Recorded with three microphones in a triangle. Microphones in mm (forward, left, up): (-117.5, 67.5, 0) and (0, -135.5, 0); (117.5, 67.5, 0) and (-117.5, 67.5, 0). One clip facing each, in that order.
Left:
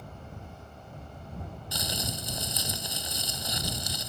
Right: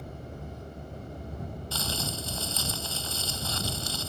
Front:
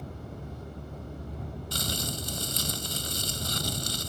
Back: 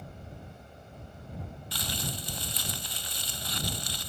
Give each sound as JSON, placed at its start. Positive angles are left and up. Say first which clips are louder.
{"t": 0.0, "sound": "a vehicle", "louder": "right 4 dB, front 6 dB", "azimuth_deg": -10}
{"t": 1.7, "sound": "crumpling", "louder": "even, front 3 dB", "azimuth_deg": 45}